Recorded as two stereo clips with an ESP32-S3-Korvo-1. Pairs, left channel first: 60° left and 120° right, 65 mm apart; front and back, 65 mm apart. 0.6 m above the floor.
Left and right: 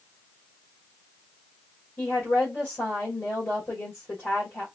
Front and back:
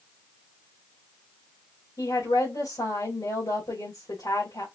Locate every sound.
2.0 s a woman speaking: 10° left, 3 m